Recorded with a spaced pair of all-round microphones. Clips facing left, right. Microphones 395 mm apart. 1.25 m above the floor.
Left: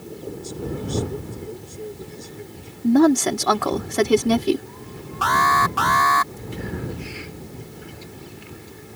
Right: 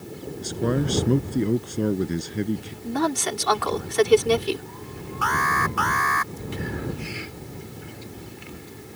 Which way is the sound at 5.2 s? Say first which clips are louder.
Left 4 dB; 85° left.